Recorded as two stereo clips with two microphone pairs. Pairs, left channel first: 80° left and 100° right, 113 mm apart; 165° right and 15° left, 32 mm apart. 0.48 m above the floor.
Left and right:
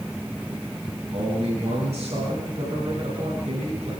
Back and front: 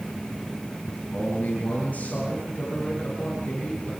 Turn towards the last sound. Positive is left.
turn(degrees=-125)